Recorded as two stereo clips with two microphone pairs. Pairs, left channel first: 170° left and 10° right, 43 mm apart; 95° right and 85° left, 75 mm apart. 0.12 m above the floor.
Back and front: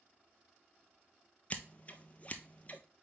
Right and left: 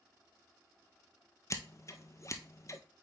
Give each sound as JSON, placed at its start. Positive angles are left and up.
{"t": 1.5, "sound": "scissors", "azimuth_deg": -135, "distance_m": 0.7}